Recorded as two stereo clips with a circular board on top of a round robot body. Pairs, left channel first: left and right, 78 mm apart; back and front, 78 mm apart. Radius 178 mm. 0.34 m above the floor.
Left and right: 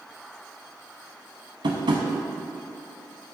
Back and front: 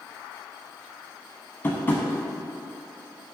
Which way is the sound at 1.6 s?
115° right.